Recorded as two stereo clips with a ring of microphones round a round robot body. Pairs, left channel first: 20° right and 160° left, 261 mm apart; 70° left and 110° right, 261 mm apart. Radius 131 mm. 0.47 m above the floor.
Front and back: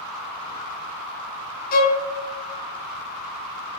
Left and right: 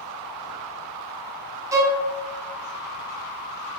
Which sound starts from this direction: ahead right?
A violin, at 1.7 s.